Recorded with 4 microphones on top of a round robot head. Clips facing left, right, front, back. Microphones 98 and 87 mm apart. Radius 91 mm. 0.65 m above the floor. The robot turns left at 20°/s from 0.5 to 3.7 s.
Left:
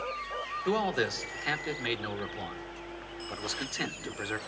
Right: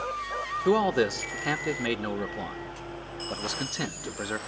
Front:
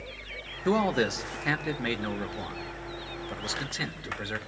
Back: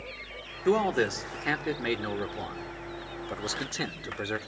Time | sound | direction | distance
0.7 | a man speaking | 75° right | 1.3 m